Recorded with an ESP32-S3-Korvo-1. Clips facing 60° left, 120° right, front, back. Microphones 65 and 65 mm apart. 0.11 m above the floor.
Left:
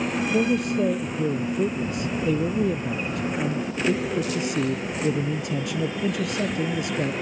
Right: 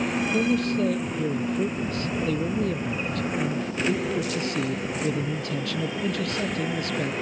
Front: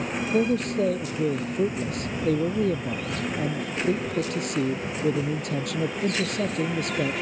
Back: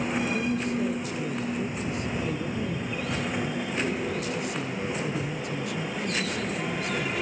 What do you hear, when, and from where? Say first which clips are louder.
0.3 s a man speaking: left 2 dB, front 4 dB; 10° right